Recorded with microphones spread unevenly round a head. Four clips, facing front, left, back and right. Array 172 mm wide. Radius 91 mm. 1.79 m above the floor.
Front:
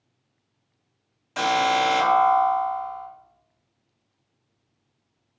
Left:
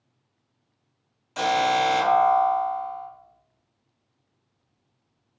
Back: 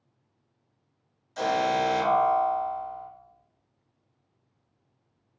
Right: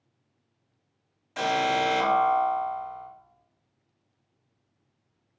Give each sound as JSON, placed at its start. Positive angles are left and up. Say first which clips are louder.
{"t": 1.4, "sound": "an alarm", "louder": "left 3 dB, front 4 dB", "azimuth_deg": 5, "distance_m": 4.5}